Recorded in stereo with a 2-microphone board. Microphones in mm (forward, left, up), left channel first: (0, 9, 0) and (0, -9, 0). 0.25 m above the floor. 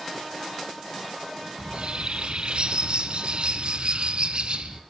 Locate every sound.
1.6 s a bird: 60° right (ahead or behind), 1.6 m